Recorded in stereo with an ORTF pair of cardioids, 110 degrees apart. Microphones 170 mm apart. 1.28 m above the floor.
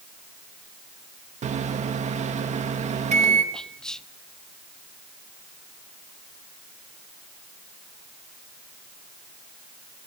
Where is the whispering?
5° left, 0.6 m.